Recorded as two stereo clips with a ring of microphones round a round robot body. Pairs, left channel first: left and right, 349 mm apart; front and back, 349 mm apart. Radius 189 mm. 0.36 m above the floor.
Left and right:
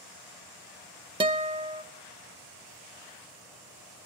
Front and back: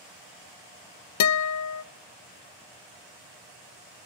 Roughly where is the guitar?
Ahead.